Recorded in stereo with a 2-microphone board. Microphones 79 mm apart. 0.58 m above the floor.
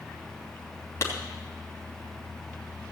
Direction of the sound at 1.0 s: 35° left (ahead or behind).